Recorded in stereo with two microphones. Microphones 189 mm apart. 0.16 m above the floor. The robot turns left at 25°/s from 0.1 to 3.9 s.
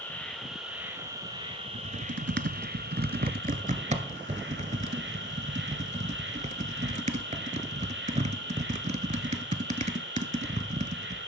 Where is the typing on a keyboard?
70° right (ahead or behind), 0.7 m; by 11.2 s 40° right (ahead or behind), 0.7 m.